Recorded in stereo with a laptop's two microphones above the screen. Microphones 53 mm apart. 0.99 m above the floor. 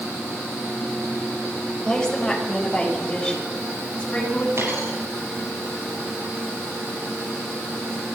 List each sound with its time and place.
1.9 s a woman speaking: 15° left (ahead or behind), 5.5 m; by 4.5 s 25° left (ahead or behind), 8.5 m
4.6 s a dropped coin: 55° right (ahead or behind), 7 m